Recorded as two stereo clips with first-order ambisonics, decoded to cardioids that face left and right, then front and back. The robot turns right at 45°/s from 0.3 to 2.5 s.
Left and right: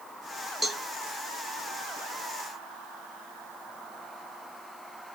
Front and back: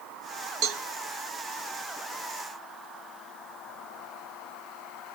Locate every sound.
0.6 s a cowbell: 175° right, 1.0 m; by 0.8 s 165° right, 1.0 m